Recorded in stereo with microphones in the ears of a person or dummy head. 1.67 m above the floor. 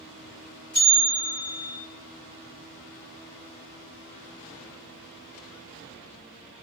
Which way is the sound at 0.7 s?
5° left (ahead or behind).